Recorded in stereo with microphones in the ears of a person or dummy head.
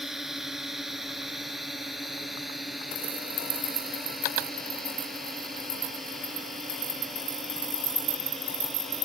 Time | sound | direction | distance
0.0 | a drone | centre (ahead or behind) | ?